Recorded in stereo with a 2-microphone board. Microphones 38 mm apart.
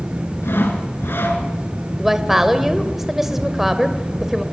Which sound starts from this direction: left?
Sawing, at 0.4 s.